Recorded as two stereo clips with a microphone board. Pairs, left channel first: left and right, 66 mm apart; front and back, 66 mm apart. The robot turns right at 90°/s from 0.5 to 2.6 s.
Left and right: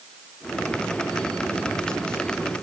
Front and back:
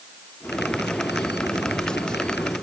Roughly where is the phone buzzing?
No phone buzzing in this recording.